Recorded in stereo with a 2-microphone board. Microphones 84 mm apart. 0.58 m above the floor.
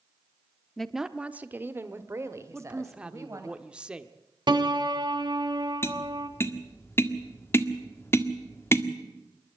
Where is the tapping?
30° left (ahead or behind), 1.6 m.